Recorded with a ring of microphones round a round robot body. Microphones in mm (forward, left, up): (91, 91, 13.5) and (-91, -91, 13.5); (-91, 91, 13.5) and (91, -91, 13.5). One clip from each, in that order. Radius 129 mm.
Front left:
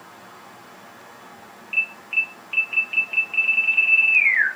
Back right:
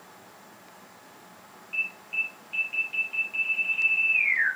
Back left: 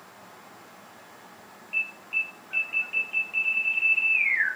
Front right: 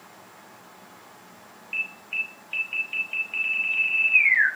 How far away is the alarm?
About 3.5 m.